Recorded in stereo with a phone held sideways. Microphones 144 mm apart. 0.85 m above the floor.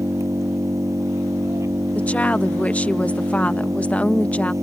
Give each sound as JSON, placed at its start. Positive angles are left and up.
{"t": 0.0, "sound": "an engine running", "side_deg": -20}
{"t": 1.9, "sound": "a woman speaking", "side_deg": 10}